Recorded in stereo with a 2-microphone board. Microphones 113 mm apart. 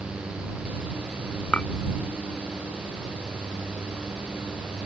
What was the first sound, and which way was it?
A clink, 10° left (ahead or behind).